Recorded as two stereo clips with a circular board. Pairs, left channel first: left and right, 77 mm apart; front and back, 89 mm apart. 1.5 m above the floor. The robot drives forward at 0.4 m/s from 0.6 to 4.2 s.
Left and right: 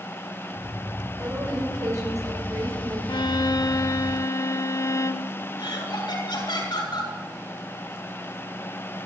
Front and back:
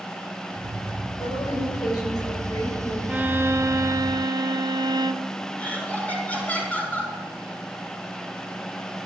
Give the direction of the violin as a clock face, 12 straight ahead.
8 o'clock.